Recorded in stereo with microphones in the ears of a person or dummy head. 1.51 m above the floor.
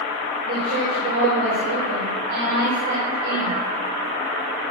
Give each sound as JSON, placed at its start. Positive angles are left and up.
{"t": 0.5, "sound": "a woman speaking", "side_deg": -60, "distance_m": 7.0}